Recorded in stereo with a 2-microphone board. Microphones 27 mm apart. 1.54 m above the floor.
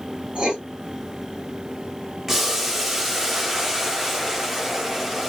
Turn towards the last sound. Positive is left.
turn(degrees=-10)  # may be behind; listen again after turning